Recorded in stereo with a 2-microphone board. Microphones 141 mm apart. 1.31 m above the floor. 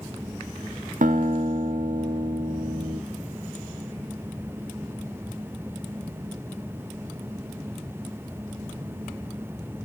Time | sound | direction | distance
1.0 | a guitar | 65° right (ahead or behind) | 0.5 m